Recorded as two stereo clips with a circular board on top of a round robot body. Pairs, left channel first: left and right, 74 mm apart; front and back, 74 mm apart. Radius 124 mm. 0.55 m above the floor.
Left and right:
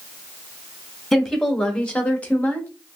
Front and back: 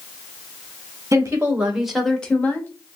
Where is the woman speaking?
170° left, 1.2 m; by 2.7 s 35° left, 1.3 m.